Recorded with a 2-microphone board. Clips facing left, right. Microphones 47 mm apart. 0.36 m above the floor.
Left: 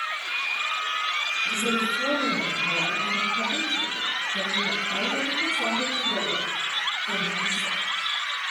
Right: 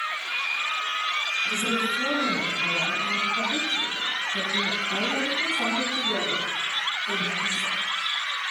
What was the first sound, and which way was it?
A woman speaking, 35° right (ahead or behind).